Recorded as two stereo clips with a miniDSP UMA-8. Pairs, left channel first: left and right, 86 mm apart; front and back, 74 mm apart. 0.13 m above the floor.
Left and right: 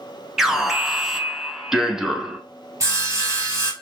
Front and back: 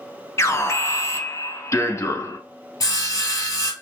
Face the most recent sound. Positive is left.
turn(degrees=-40)